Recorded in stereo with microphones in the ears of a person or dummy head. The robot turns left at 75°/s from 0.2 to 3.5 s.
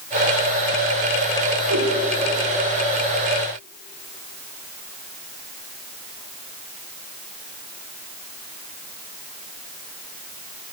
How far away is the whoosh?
About 1.3 m.